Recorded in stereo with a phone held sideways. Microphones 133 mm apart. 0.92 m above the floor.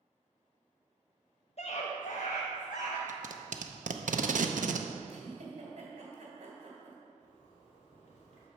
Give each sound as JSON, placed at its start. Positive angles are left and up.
{"t": 1.6, "sound": "a scream", "side_deg": 50, "distance_m": 0.6}
{"t": 3.1, "sound": "tape being pulled", "side_deg": -75, "distance_m": 0.6}
{"t": 5.1, "sound": "a giggle", "side_deg": -55, "distance_m": 2.0}
{"t": 7.2, "sound": "a zipper", "side_deg": 65, "distance_m": 2.5}